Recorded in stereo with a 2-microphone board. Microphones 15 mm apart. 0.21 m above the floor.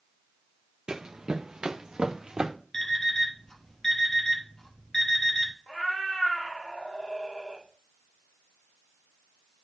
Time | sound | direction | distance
0.9 | running footsteps | 70° right (ahead or behind) | 0.6 m
2.7 | an alarm clock | 45° left (ahead or behind) | 1.8 m
5.7 | a cat meowing | 65° left (ahead or behind) | 3.5 m